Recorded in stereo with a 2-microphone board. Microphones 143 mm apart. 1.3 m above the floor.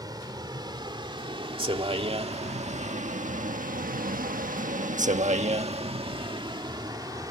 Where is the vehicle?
30° right (ahead or behind); by 7.3 s 25° right (ahead or behind).